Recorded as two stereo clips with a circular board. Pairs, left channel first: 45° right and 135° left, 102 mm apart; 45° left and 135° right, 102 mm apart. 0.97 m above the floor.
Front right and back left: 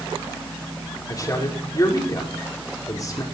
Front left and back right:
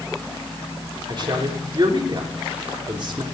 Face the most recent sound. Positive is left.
turn(degrees=-95)